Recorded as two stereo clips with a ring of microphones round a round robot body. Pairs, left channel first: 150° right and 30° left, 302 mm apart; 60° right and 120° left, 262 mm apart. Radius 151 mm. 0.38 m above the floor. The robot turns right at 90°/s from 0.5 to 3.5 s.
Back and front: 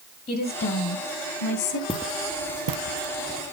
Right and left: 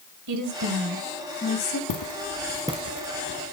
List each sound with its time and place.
0.3 s a woman speaking: 140° left, 2.5 m; by 1.8 s 105° right, 2.5 m
1.9 s footsteps: 75° right, 1.5 m; by 3.5 s 170° left, 1.4 m